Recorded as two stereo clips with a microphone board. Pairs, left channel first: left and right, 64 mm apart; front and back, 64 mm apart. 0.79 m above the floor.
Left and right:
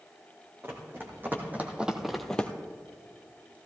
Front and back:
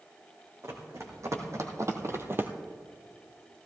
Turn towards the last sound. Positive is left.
turn(degrees=140)